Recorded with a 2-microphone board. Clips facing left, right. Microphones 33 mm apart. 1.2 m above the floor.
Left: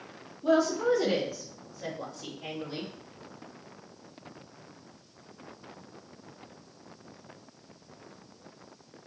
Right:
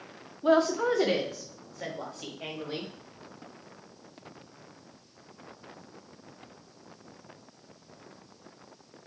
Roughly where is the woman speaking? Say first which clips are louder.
Right 1 dB; right.